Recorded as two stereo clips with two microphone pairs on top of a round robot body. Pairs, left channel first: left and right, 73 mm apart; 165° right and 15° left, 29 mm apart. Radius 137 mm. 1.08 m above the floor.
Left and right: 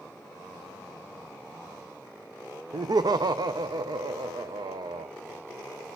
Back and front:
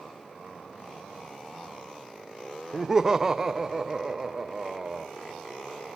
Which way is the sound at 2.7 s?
60° right.